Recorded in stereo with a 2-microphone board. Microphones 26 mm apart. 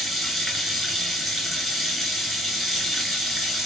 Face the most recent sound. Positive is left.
turn(degrees=0)  # may be behind; listen again after turning